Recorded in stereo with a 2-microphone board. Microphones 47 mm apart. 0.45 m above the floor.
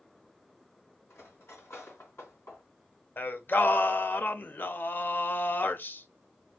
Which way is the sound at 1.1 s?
65° left (ahead or behind).